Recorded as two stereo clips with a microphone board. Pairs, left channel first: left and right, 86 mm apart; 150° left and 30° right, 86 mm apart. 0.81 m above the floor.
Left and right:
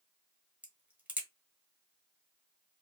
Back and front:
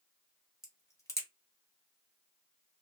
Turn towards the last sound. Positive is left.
turn(degrees=-160)